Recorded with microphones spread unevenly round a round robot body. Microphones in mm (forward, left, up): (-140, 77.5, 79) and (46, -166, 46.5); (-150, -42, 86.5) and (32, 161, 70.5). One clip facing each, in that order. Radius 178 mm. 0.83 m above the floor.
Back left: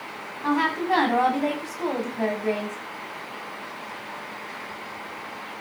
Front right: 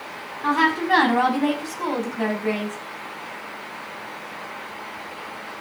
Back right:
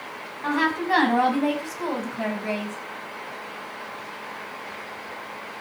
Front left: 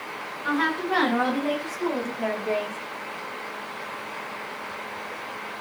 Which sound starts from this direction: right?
A woman speaking, at 0.4 s.